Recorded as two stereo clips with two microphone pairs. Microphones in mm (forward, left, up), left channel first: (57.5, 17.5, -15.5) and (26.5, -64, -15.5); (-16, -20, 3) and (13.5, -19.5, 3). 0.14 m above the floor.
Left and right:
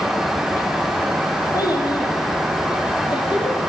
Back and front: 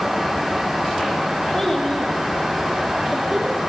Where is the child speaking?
105° left, 2.5 m; by 3.6 s 80° left, 2.5 m.